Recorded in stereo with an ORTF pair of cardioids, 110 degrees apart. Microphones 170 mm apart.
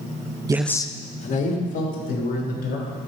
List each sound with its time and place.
0.5 s a man speaking: 25° right, 0.5 m; by 3.0 s 55° left, 4 m